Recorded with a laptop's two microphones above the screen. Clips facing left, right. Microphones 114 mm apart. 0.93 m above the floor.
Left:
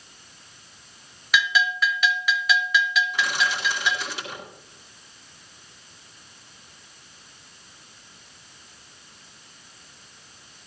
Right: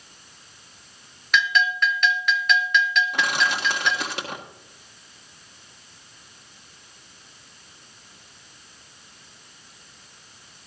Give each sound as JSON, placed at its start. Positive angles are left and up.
{"t": 1.3, "sound": "a bell", "side_deg": 5, "distance_m": 0.8}
{"t": 3.1, "sound": "crushing", "side_deg": -65, "distance_m": 1.7}